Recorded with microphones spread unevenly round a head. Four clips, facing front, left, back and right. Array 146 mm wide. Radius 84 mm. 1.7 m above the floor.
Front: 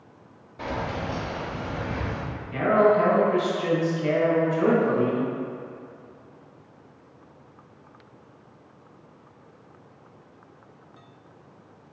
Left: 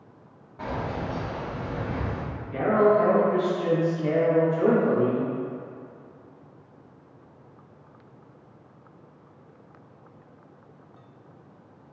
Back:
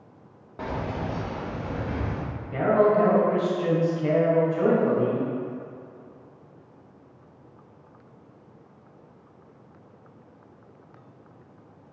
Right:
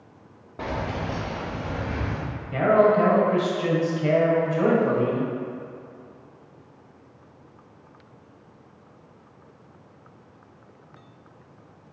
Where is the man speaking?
100° right, 1.7 m.